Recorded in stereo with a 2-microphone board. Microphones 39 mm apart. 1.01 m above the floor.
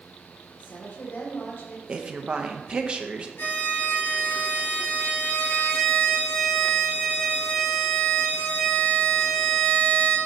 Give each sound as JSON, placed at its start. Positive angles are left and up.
{"t": 0.6, "sound": "a woman speaking", "side_deg": 65, "distance_m": 1.7}
{"t": 1.9, "sound": "a woman speaking", "side_deg": -30, "distance_m": 0.7}
{"t": 3.4, "sound": "a violin", "side_deg": 70, "distance_m": 3.0}